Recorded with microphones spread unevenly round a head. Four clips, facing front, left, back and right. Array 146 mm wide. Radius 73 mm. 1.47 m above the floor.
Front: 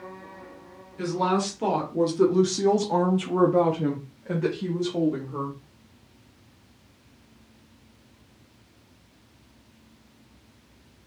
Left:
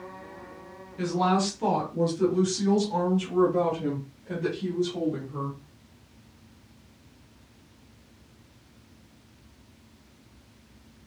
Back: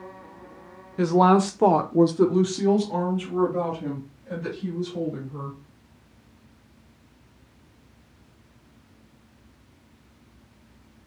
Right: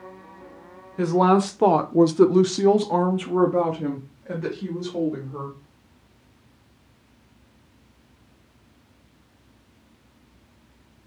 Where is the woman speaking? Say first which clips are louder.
Right 6 dB, back 7 dB; 140° right, 0.9 m; by 5.6 s 20° right, 1.8 m.